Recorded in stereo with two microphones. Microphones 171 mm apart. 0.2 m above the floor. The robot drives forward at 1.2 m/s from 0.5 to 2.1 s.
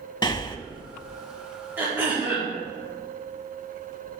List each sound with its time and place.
0.2 s breathing: 25° left (ahead or behind), 0.6 m
1.8 s throat clearing: 10° right (ahead or behind), 3.5 m